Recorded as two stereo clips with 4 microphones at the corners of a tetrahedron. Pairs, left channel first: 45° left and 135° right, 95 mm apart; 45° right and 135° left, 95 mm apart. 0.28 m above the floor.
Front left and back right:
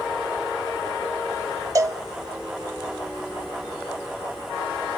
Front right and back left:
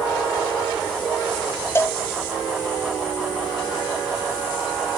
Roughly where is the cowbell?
Right.